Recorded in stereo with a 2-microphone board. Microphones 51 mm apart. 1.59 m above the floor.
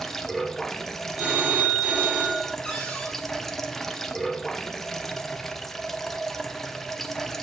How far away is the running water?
About 0.9 m.